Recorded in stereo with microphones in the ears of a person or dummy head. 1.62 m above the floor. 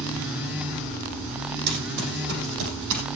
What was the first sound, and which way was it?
Running footsteps, 55° right (ahead or behind).